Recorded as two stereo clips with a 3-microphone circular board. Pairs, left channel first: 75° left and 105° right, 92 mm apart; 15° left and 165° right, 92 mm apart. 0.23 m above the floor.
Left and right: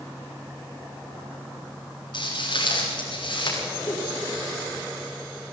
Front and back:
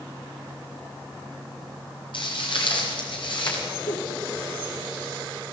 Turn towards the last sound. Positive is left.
turn(degrees=15)